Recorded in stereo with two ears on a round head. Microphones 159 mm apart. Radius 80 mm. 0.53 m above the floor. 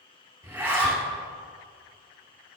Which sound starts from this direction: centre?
A zipper, at 0.4 s.